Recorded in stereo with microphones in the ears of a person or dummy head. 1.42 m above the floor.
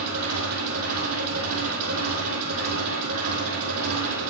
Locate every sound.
0.0 s an engine running: 75° right (ahead or behind), 4.5 m